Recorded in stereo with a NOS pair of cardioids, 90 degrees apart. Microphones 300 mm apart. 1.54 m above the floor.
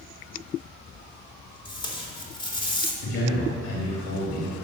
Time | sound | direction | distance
1.6 | tape being pulled | 15° left | 3 m
3.0 | a man speaking | 65° left | 4 m